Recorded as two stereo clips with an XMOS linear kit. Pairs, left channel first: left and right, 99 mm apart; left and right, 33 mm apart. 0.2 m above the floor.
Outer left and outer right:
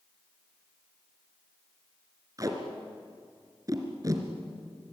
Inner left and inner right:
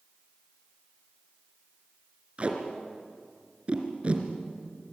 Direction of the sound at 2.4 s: 35° right (ahead or behind).